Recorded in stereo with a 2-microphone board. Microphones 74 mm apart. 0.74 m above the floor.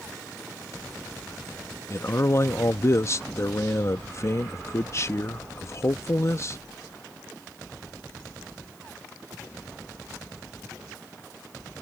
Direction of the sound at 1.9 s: 40° left (ahead or behind).